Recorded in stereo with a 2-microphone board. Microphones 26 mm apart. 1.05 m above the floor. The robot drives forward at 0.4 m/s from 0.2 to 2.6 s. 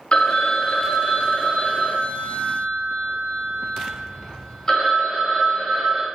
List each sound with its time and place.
0.1 s a phone ringing: 40° left (ahead or behind), 0.5 m; by 6.1 s 15° left (ahead or behind), 1.3 m